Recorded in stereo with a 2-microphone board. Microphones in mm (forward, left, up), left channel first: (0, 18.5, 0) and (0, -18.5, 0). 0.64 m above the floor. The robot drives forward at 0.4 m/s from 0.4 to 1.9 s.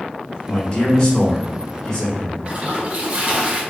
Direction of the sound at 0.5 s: 20° left (ahead or behind).